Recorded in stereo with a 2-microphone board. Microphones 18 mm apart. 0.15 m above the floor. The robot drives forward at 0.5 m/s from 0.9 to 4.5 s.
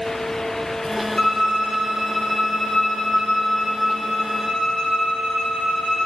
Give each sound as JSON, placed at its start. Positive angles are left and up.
{"t": 1.2, "sound": "a violin", "side_deg": 35, "distance_m": 2.5}